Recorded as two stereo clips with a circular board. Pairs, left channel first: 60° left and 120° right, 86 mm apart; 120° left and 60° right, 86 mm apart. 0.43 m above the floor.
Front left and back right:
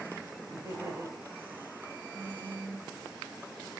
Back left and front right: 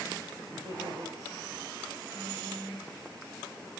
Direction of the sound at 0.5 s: 75° right.